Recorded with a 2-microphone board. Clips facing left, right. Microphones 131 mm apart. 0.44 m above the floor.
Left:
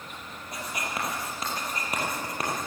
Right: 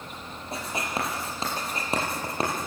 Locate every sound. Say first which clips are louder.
0.5 s writing: right 3 dB; 30° right (ahead or behind), 5.5 m